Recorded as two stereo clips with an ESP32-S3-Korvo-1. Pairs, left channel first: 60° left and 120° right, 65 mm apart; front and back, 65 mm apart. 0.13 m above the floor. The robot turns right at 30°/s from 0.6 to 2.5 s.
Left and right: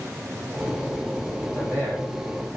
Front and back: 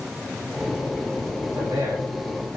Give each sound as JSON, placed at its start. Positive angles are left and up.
{"t": 1.5, "sound": "a man speaking", "azimuth_deg": 175, "distance_m": 6.5}